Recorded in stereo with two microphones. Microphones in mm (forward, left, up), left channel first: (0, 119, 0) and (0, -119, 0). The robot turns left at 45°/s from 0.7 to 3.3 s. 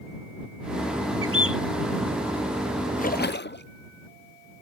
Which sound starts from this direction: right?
A bird, at 1.2 s.